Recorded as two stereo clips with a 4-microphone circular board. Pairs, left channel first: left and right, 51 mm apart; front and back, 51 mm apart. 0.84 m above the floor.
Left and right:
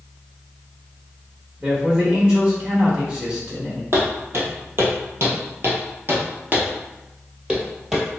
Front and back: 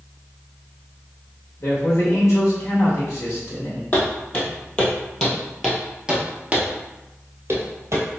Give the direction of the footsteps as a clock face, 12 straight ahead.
2 o'clock.